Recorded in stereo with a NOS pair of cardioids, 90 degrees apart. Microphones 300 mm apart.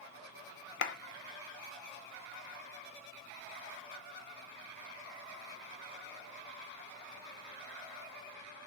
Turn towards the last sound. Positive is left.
turn(degrees=40)